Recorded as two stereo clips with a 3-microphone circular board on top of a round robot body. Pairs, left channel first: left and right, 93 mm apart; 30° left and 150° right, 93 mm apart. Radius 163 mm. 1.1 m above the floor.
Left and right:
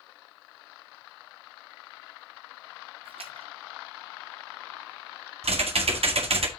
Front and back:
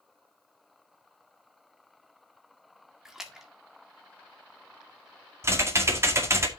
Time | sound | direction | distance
3.0 | a splash | 65° right | 1.7 m
5.4 | typing on a keyboard | 90° right | 2 m